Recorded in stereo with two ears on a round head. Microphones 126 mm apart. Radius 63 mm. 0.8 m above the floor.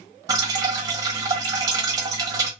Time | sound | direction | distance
0.3 | dripping | 25° right (ahead or behind) | 0.8 m